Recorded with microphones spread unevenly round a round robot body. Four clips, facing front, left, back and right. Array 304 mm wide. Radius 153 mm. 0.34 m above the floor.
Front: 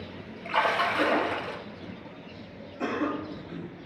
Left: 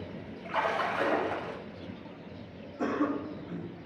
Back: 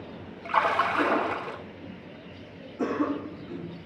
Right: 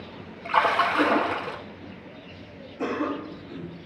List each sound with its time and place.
0.5 s a splash: 115° right, 1.2 m
2.8 s a cough: 175° left, 3.5 m